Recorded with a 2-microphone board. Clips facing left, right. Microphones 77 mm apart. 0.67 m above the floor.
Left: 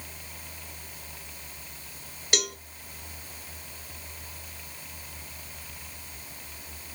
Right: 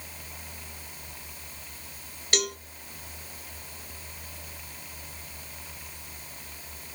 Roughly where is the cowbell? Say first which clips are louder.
Right 1 dB; centre.